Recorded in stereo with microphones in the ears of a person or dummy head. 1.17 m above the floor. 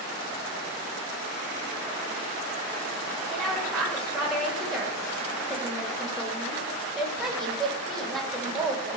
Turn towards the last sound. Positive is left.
turn(degrees=0)  # may be behind; listen again after turning